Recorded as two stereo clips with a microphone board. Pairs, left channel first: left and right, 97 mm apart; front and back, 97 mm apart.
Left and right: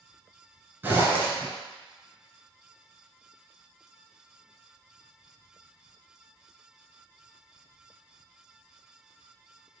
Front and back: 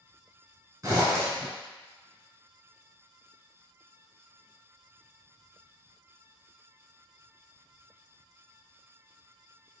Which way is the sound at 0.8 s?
145° right.